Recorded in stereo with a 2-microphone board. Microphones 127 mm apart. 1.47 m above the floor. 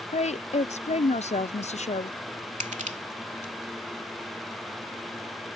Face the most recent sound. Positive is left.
turn(degrees=-85)